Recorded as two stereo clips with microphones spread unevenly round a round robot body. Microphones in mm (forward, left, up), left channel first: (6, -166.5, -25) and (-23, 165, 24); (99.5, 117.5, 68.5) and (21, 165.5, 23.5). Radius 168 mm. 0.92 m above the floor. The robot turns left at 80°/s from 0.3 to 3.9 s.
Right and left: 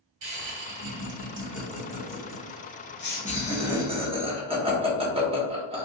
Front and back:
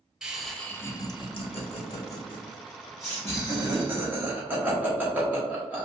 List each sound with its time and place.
0.2 s laughter: 100° left, 1.0 m; by 5.8 s 170° left, 1.0 m